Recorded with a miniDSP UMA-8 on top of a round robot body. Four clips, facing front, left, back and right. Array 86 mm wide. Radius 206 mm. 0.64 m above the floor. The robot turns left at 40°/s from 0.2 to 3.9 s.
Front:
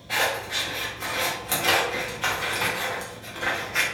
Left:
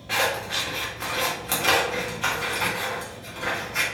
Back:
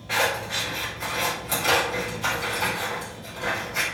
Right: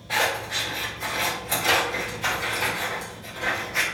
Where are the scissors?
120° left, 1.2 m; by 3.8 s 25° right, 1.2 m.